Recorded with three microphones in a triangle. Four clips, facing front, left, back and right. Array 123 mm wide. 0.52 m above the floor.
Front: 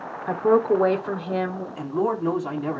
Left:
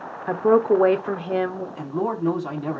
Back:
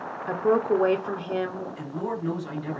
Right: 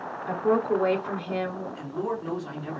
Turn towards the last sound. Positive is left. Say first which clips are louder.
# left 7 dB, front 9 dB
turn(degrees=50)